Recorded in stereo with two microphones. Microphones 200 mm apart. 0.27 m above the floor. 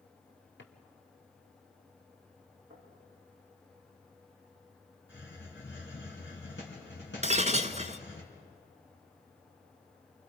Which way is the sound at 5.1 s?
70° left (ahead or behind).